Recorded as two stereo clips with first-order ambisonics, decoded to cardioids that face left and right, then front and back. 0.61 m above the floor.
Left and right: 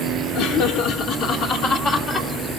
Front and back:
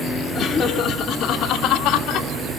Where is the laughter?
65° left, 1.6 m; by 2.3 s 25° left, 1.6 m.